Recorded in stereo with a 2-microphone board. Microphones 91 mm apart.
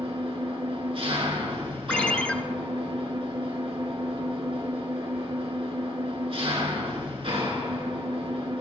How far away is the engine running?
About 2.5 m.